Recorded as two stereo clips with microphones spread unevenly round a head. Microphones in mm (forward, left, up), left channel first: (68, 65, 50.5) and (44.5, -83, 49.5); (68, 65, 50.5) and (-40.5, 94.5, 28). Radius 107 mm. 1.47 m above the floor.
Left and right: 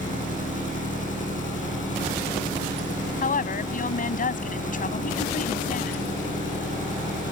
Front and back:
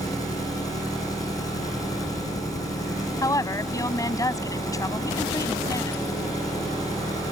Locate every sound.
0.0 s an engine running: 45° left
3.2 s a woman speaking: 45° left